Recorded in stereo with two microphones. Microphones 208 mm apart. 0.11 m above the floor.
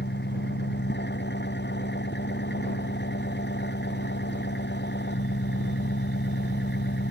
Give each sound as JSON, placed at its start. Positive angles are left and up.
{"t": 0.0, "sound": "an engine running", "side_deg": 55}